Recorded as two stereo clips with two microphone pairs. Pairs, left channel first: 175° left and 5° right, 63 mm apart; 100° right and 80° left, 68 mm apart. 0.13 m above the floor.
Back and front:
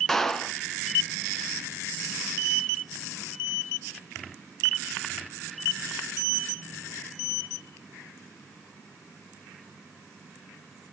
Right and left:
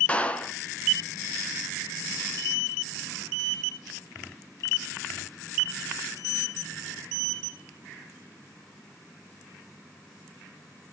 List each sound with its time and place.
0.1 s a clap: 115° right, 0.9 m